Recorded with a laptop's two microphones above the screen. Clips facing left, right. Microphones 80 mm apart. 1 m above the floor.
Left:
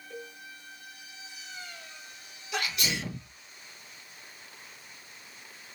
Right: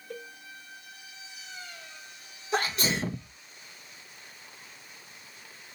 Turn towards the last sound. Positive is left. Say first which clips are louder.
# right 4 dB
turn(degrees=-35)  # may be behind; listen again after turning